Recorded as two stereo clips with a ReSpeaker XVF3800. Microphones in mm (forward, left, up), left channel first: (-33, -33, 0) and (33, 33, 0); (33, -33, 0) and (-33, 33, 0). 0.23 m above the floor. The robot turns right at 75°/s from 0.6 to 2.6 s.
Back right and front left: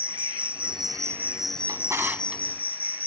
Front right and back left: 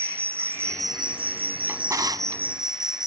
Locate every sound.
0.0 s an insect: 70° left; by 3.1 s 140° right
1.7 s a drawer: 75° left; by 2.4 s 135° left